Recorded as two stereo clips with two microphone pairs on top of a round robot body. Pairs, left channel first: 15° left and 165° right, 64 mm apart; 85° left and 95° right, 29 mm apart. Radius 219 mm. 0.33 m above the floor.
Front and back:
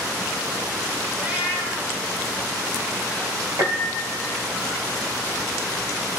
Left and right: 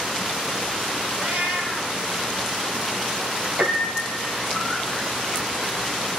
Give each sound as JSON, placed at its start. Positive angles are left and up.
{"t": 1.2, "sound": "a cat meowing", "azimuth_deg": -105, "distance_m": 4.0}
{"t": 3.6, "sound": "a piano", "azimuth_deg": -120, "distance_m": 4.0}